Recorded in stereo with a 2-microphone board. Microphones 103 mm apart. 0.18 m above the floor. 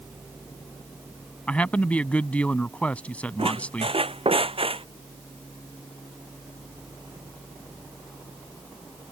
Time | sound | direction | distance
1.5 | a man speaking | 15° left (ahead or behind) | ?
3.4 | a squeak | 65° right (ahead or behind) | ?